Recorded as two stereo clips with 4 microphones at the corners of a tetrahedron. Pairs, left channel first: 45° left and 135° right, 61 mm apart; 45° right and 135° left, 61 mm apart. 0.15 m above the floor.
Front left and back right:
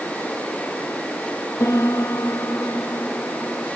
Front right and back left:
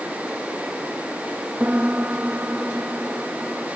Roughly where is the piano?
Left.